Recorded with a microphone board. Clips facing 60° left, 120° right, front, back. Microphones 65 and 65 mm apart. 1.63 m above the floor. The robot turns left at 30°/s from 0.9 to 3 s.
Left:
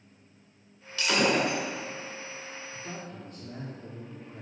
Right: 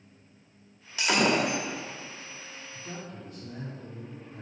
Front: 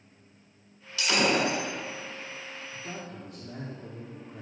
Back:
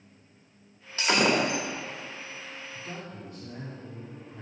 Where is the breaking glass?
Straight behind, 1.5 m; by 1.6 s 160° left, 1.5 m.